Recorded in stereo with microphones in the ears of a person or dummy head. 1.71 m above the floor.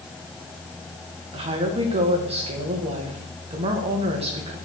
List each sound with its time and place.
1.3 s a woman speaking: 25° right (ahead or behind), 1.7 m